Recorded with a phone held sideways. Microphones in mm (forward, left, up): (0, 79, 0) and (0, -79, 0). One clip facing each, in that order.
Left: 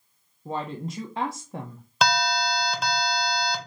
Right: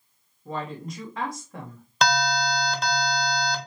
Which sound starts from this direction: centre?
An alarm, at 2.0 s.